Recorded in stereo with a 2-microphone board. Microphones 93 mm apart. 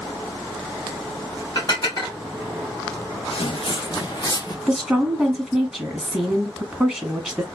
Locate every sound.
1.6 s dishes clattering: 45° left (ahead or behind), 2.5 m
3.3 s footsteps: 85° left, 0.5 m; by 4.6 s 40° left (ahead or behind), 1.2 m
4.7 s a woman speaking: centre (ahead or behind), 1.3 m